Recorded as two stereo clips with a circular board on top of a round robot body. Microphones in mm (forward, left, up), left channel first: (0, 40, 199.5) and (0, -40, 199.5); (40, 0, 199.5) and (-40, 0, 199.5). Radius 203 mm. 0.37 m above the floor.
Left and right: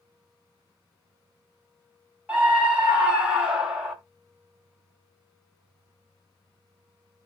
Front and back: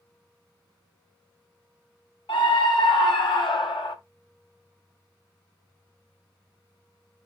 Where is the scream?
15° right, 4 m; by 4.0 s 10° right, 2.5 m.